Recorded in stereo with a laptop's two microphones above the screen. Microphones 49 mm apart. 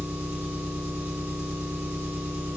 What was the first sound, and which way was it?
An engine running, 65° right (ahead or behind).